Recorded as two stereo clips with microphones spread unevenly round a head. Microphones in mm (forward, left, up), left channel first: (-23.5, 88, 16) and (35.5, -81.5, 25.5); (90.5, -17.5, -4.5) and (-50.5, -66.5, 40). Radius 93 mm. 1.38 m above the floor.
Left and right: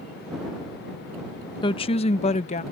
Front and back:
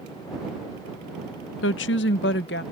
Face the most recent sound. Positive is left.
turn(degrees=55)